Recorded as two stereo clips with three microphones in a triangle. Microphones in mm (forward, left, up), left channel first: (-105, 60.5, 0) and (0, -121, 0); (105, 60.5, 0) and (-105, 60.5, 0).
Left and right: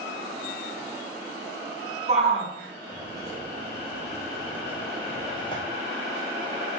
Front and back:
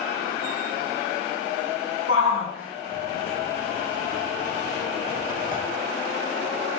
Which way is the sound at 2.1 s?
Straight ahead.